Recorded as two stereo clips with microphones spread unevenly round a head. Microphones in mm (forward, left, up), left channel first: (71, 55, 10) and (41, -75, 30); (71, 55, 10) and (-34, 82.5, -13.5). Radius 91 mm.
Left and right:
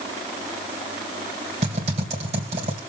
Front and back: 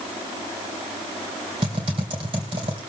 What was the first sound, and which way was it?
Typing on a keyboard, 135° right.